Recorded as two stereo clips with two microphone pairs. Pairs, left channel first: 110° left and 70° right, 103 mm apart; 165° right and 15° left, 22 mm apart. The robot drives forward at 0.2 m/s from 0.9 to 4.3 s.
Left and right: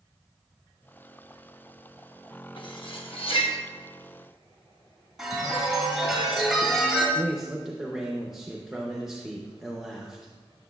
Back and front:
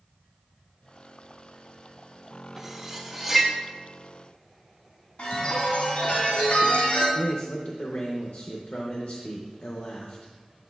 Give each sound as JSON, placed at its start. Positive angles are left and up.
{"t": 2.6, "sound": "cutlery clinking", "azimuth_deg": 90, "distance_m": 0.9}
{"t": 5.2, "sound": "a chime", "azimuth_deg": -155, "distance_m": 2.5}
{"t": 7.2, "sound": "a man speaking", "azimuth_deg": -155, "distance_m": 0.7}